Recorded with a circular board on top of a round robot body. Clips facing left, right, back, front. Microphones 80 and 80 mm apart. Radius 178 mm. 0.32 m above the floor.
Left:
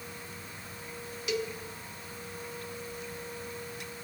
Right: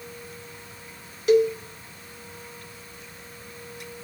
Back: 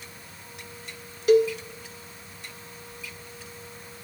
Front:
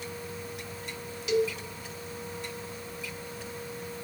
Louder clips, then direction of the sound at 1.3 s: Right 15 dB, back 8 dB; 135° right.